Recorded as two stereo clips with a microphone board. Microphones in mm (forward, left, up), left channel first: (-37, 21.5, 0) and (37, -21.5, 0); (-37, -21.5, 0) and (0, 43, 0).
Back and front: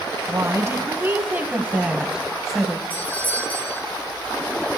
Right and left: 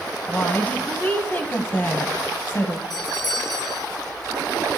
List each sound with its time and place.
0.3 s a woman speaking: 60° right, 2 m; by 2.8 s 130° right, 1.8 m
2.9 s a doorbell: 140° right, 6 m